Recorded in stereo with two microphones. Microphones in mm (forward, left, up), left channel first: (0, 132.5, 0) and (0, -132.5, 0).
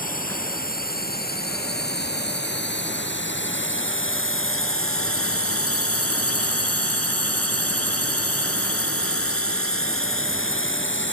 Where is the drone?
35° left (ahead or behind); by 11.1 s 50° left (ahead or behind).